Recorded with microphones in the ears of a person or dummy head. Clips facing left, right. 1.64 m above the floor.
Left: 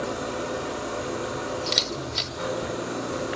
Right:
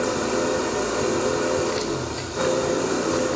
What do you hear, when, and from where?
0.0 s an engine running: 70° right (ahead or behind), 4 m
1.7 s a camera shutter: 55° left (ahead or behind), 2.5 m